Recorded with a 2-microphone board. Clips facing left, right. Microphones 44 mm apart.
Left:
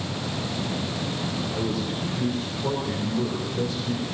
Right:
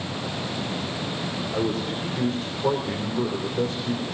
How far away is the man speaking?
About 4 m.